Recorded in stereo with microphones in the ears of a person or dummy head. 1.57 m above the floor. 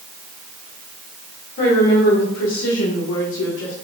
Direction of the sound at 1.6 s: 55° left (ahead or behind).